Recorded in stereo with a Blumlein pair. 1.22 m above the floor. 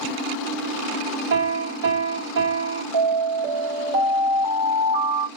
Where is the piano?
65° right, 2.5 m.